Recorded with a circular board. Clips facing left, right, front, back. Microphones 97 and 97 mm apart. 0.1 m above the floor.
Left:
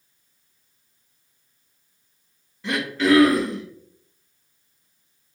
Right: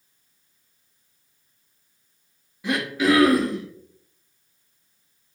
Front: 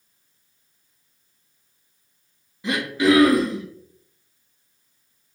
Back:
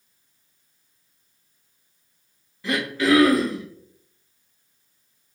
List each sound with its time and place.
2.6 s throat clearing: 30° right, 1.1 m